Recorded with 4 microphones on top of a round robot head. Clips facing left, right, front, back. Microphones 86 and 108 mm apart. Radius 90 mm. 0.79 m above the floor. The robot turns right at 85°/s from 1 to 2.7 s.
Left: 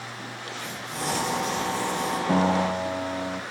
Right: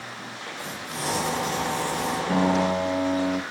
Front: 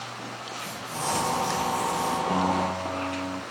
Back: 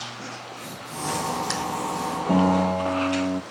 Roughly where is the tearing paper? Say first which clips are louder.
Even, front 2 dB; behind.